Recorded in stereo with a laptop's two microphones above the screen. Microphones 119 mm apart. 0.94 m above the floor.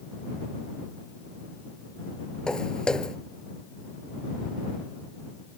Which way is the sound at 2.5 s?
5° left (ahead or behind).